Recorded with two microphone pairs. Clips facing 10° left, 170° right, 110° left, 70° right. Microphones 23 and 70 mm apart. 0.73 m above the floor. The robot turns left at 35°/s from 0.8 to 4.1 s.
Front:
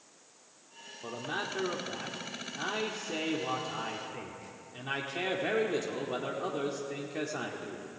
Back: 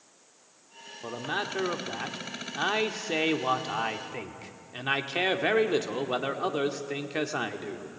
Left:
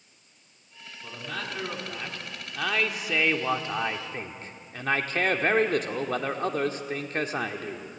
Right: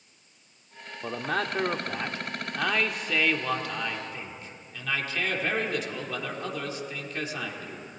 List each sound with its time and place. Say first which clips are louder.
1.0 s a man speaking: back 4 dB, right 7 dB; 100° right, 1.6 m; by 7.9 s 155° left, 1.6 m